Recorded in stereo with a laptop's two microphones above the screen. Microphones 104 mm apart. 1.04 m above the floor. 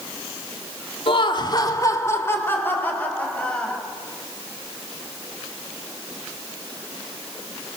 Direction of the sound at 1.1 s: 55° left (ahead or behind).